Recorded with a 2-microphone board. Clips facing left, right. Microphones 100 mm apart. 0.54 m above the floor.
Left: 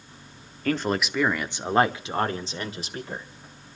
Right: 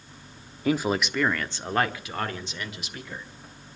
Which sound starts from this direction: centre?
A man speaking, at 0.7 s.